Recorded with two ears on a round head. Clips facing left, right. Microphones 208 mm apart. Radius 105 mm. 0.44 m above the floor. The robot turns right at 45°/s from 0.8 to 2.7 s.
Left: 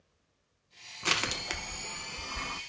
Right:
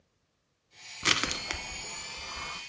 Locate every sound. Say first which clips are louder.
1.0 s crushing: right 1 dB; 25° right (ahead or behind), 0.6 m; by 2.6 s 45° left (ahead or behind), 0.6 m